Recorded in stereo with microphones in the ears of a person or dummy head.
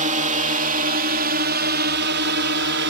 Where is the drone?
35° right (ahead or behind); by 2.9 s 55° right (ahead or behind).